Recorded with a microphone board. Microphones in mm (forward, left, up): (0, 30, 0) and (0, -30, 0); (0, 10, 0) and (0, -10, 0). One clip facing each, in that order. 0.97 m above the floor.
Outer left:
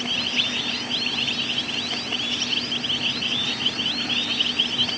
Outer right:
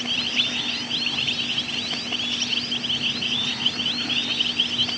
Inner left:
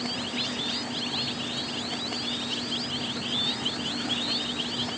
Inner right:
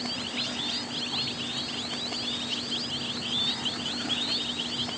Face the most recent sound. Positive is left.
No sound to turn to.